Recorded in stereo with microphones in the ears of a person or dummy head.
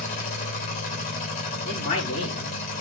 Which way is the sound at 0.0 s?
40° left (ahead or behind).